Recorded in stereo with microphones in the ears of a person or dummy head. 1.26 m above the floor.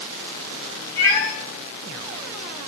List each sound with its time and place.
1.0 s a cat meowing: 15° left (ahead or behind), 3.5 m